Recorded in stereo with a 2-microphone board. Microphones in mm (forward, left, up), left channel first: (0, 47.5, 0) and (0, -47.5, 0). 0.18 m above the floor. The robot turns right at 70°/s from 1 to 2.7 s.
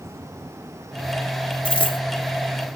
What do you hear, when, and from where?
1.6 s a dropped coin: 70° left (ahead or behind), 1.2 m; by 2.0 s 55° left (ahead or behind), 1.2 m